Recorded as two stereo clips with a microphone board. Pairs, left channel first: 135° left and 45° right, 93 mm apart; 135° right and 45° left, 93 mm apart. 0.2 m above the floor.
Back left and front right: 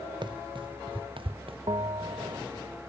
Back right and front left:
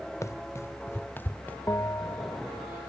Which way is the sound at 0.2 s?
75° right.